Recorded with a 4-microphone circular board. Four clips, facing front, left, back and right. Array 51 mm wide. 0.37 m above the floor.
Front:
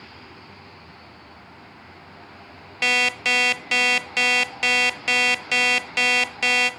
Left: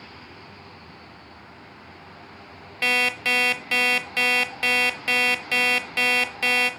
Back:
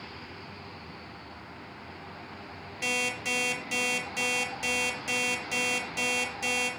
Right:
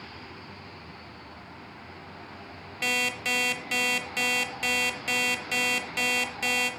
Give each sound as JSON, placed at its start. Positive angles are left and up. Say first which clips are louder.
{"t": 2.8, "sound": "an alarm clock", "louder": "left 6 dB, front 10 dB", "azimuth_deg": 30, "distance_m": 0.8}